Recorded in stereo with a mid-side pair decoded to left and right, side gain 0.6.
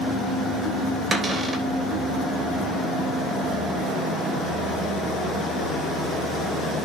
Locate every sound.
1.1 s a cupboard door: 25° right, 3 m